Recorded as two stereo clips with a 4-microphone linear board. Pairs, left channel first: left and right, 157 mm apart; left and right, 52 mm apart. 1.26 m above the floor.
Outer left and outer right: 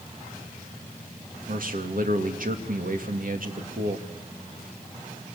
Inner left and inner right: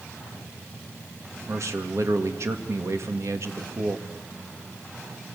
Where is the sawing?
I don't hear sawing.